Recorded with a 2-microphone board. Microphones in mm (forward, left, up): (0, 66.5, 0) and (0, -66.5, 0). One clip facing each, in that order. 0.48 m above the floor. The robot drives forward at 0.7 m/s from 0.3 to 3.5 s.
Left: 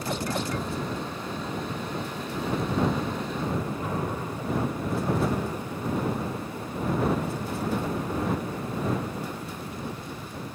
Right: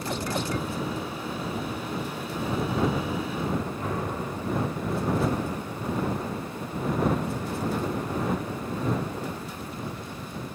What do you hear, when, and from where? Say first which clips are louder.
3.8 s an explosion: even; 25° left (ahead or behind), 3 m